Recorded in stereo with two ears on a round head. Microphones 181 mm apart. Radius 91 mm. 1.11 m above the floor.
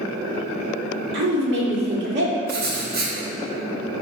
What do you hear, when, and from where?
1.1 s a woman speaking: 60° right (ahead or behind), 1.9 m
2.5 s writing: 50° right (ahead or behind), 1.8 m